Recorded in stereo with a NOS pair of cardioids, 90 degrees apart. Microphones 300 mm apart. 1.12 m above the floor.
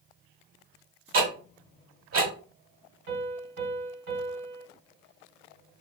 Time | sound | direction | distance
1.1 | ticking | 45° right | 1.7 m
3.1 | a piano | 50° right | 1.7 m